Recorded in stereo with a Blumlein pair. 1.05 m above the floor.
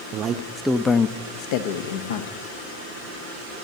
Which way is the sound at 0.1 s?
35° right.